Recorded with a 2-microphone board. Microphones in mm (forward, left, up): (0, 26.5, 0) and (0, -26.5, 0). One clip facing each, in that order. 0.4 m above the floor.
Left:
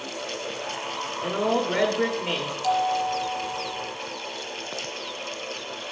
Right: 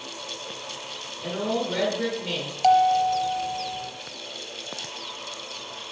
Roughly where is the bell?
Right.